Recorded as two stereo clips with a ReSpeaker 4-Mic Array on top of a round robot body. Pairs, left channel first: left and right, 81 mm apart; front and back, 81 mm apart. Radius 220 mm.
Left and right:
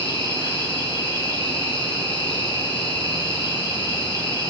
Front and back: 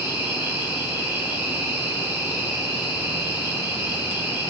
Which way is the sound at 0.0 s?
110° left.